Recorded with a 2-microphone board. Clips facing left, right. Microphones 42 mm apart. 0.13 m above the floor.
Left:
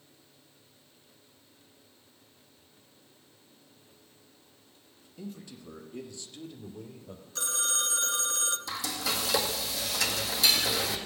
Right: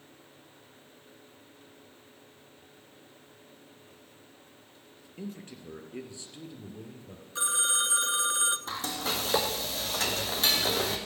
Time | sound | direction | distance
5.2 | a man speaking | 45° right (ahead or behind) | 2 m
7.3 | a phone ringing | 20° right (ahead or behind) | 0.8 m
8.7 | frying | 40° right (ahead or behind) | 1.7 m